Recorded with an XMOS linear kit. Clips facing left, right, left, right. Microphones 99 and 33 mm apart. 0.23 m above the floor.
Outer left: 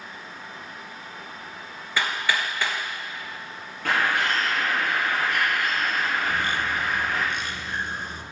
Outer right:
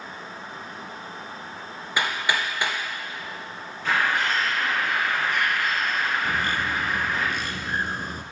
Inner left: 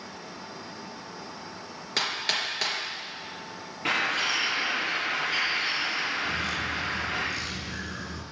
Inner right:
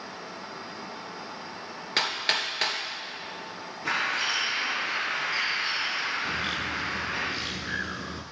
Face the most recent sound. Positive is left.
turn(degrees=-45)  # may be behind; listen again after turning